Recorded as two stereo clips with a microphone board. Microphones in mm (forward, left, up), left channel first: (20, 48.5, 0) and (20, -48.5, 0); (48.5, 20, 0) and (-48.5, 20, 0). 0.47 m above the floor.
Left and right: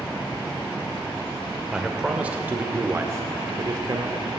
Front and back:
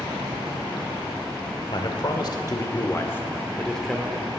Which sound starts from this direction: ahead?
A man speaking, at 1.7 s.